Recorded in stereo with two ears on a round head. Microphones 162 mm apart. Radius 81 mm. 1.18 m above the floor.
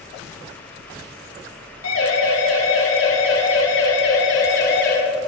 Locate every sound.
1.8 s a siren: 90° left, 5 m; by 5.0 s 60° left (ahead or behind), 3 m